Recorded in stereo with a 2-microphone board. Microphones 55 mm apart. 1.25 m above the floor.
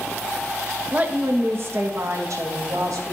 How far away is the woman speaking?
About 0.9 m.